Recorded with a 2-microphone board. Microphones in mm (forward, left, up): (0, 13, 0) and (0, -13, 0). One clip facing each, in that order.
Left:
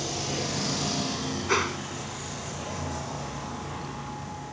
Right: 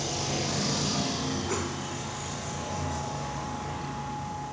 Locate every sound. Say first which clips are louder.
1.5 s a whoosh: left 6 dB; 45° left (ahead or behind)